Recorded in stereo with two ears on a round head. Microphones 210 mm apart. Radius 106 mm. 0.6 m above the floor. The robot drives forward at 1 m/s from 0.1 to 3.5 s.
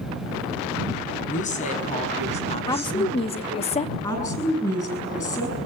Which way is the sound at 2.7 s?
15° left (ahead or behind).